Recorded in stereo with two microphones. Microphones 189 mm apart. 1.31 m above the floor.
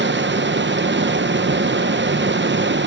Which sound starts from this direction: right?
Running water, at 0.0 s.